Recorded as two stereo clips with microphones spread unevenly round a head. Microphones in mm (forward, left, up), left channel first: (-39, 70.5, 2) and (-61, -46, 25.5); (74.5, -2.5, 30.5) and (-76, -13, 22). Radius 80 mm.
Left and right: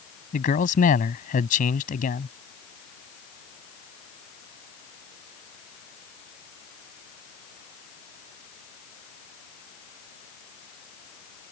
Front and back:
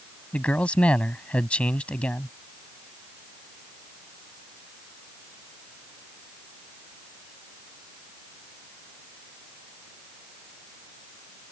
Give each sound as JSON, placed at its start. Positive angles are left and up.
{"t": 0.3, "sound": "a man speaking", "azimuth_deg": 85}